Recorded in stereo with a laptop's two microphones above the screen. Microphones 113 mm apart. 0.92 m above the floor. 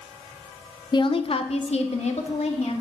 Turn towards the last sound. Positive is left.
turn(degrees=70)  # may be behind; listen again after turning